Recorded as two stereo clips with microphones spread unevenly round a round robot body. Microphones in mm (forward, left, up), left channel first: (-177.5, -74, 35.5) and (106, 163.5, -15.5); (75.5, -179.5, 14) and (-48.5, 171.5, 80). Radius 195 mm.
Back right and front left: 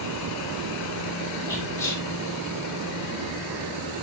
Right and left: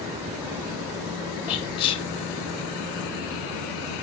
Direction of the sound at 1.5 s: 50° right.